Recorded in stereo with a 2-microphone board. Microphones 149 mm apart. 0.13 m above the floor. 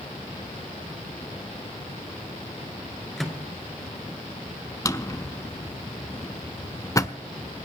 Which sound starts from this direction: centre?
A microwave, at 3.2 s.